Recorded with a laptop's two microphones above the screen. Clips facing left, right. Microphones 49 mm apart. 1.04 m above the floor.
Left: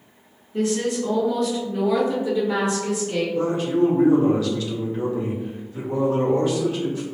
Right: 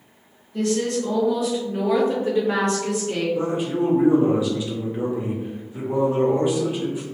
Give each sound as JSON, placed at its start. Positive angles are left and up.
{"t": 0.5, "sound": "a woman speaking", "side_deg": 20, "distance_m": 1.2}
{"t": 3.4, "sound": "a man speaking", "side_deg": -15, "distance_m": 0.6}